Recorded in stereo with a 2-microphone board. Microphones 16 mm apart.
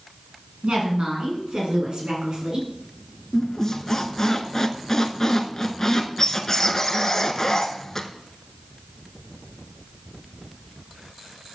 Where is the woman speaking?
70° right (ahead or behind), 4.5 m; by 2.7 s 60° right (ahead or behind), 5 m.